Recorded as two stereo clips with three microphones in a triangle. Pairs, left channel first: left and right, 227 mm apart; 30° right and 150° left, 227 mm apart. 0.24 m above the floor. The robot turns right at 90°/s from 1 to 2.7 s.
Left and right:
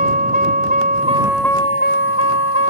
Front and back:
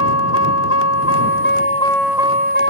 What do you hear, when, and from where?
0.0 s a vehicle: 35° right; by 2.7 s 120° left